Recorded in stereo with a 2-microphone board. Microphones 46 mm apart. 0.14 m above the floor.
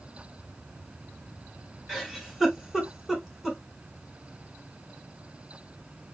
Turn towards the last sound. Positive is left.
turn(degrees=-5)  # may be behind; listen again after turning